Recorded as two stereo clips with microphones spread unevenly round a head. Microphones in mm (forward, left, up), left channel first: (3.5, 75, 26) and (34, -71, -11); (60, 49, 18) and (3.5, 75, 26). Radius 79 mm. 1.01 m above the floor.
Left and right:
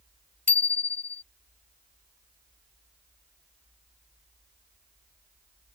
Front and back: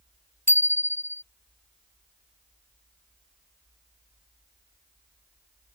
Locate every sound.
0.5 s a bicycle bell: 25° left